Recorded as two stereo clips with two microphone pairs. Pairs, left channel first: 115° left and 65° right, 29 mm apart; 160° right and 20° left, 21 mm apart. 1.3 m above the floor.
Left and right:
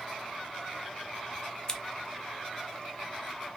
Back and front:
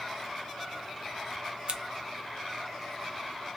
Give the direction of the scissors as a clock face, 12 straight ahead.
10 o'clock.